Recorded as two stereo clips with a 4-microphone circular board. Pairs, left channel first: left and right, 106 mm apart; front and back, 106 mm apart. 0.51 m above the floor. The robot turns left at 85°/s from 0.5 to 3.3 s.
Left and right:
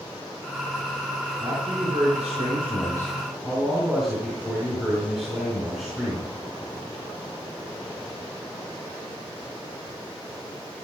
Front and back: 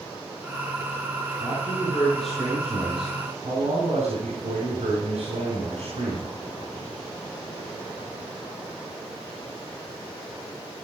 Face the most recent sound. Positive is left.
turn(degrees=-175)